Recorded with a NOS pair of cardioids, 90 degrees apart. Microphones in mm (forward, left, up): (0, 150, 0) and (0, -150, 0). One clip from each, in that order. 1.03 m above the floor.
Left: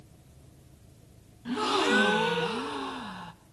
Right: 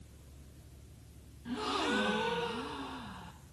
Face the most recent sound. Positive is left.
turn(degrees=40)